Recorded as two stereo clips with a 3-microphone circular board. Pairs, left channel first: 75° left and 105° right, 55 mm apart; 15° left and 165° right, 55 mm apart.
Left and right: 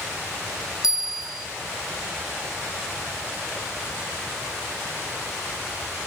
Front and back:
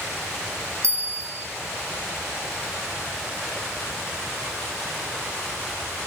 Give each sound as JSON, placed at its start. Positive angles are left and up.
{"t": 0.8, "sound": "a bell", "azimuth_deg": 180, "distance_m": 1.6}